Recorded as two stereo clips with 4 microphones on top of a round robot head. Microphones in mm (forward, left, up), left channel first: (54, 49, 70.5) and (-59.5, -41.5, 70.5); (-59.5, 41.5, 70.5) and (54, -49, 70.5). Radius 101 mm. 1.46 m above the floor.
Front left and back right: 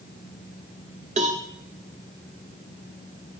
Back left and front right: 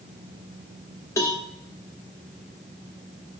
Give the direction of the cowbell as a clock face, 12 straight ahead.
5 o'clock.